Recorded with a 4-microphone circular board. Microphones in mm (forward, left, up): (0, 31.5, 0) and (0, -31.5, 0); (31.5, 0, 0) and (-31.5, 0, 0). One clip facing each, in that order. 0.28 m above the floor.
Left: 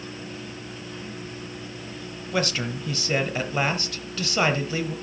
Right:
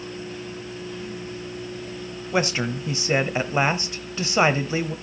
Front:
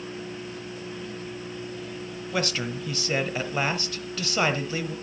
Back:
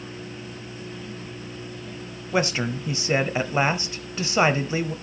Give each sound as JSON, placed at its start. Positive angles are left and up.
{"t": 2.3, "sound": "a man speaking", "azimuth_deg": -135, "distance_m": 1.0}